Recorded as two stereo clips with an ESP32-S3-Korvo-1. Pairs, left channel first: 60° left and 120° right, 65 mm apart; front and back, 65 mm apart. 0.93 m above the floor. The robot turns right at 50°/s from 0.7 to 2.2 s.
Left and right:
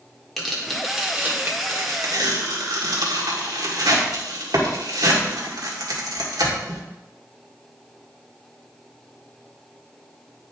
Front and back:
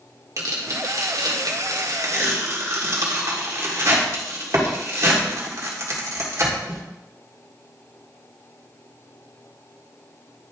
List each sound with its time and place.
0.4 s tearing paper: 145° left, 1.8 m; by 6.8 s 140° right, 1.8 m